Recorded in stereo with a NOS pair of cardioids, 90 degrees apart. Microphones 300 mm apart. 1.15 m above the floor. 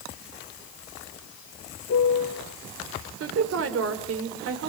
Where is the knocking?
I don't hear knocking.